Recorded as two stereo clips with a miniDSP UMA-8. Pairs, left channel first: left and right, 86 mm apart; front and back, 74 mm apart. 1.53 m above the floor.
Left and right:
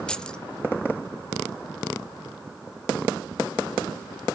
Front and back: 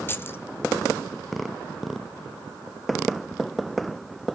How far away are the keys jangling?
About 0.6 m.